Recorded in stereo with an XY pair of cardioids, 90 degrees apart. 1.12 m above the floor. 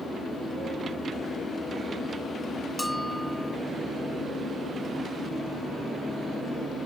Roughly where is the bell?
Ahead.